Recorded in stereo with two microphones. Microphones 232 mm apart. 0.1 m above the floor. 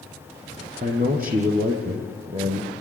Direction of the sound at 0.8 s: 35° right (ahead or behind).